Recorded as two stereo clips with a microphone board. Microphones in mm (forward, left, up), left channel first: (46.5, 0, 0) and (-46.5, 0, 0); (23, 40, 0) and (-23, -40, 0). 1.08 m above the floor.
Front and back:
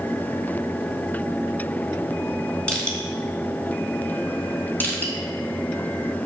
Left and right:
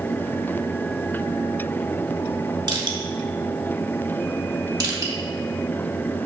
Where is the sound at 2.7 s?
80° right, 2.5 m.